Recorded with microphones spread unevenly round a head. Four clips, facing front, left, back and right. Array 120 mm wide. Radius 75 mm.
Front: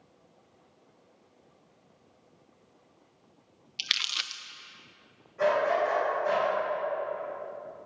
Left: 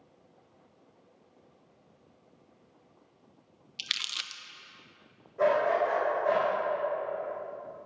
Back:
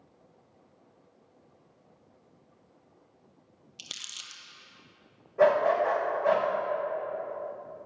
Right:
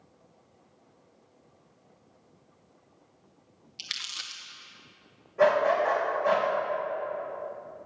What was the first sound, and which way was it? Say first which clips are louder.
Crumpling: left 2 dB, front 13 dB; 5° left.